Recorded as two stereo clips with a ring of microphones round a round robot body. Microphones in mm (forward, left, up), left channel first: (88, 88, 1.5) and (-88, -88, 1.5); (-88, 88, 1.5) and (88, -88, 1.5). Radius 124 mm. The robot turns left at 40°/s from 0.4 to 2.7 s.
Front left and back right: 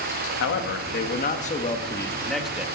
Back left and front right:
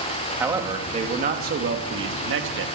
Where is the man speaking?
35° left, 1.4 m; by 2.6 s 55° right, 1.4 m.